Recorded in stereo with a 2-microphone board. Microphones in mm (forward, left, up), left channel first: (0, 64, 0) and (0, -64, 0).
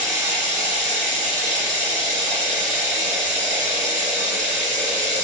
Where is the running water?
20° right (ahead or behind), 2.5 m.